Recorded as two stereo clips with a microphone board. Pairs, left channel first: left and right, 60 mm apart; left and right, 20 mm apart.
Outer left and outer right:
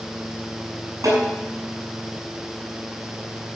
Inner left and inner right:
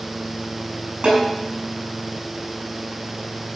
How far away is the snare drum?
About 5.5 m.